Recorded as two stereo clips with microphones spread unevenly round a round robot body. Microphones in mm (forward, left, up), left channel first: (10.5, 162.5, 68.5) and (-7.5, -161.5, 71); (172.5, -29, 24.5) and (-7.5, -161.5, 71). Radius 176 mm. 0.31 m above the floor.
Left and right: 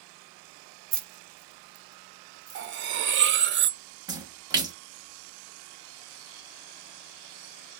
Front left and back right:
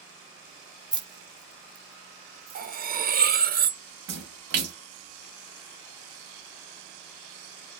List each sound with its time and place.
0.9 s keys jangling: 65° right, 0.7 m; by 2.7 s 170° right, 1.0 m
2.5 s cutlery clinking: 105° right, 0.5 m
4.1 s a splash: 170° right, 0.7 m